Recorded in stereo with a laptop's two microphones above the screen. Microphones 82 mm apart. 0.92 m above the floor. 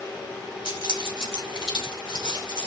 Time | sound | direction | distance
0.7 | keys jangling | 85° left | 2 m